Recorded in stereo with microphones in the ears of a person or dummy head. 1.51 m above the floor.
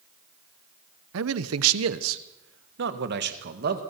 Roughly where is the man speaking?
Right.